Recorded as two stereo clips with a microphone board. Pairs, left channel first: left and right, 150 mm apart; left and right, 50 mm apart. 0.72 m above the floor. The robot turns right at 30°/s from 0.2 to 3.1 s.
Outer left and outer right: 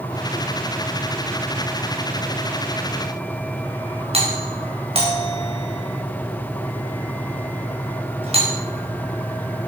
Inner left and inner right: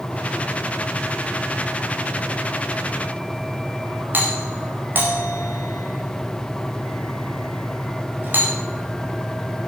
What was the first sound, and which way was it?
A doorbell, 40° right (ahead or behind).